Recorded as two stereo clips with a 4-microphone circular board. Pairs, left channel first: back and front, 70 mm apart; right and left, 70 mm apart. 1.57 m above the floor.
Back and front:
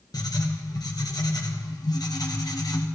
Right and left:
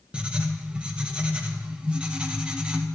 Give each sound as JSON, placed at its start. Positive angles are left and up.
{"t": 0.1, "sound": "writing", "azimuth_deg": 165, "distance_m": 1.5}